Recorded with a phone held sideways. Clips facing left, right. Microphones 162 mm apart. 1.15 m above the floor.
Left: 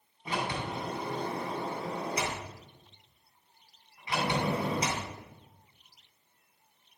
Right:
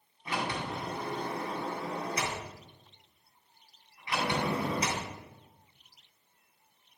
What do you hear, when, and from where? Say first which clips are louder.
0.2 s a sliding door: left 1 dB; 25° left (ahead or behind), 3 m